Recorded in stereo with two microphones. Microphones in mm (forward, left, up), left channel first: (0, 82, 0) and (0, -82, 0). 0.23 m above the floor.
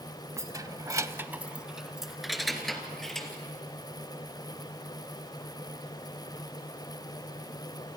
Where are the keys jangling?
20° right (ahead or behind), 0.9 m; by 3.3 s centre (ahead or behind), 3 m.